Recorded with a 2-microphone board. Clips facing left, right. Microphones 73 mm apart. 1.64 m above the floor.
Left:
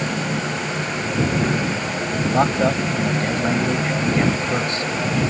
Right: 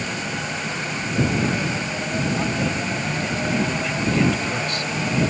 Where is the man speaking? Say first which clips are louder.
Left 9 dB; 55° left (ahead or behind); by 5.2 s 25° left (ahead or behind).